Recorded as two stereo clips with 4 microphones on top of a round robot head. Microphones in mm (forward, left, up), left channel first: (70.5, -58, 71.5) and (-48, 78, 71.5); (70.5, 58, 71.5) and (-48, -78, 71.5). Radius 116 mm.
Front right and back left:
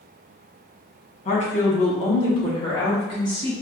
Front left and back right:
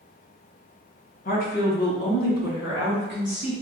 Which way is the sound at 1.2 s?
5° left.